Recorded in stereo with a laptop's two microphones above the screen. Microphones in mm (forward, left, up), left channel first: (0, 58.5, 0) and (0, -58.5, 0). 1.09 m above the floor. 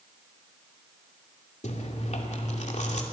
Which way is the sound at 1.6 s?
85° left.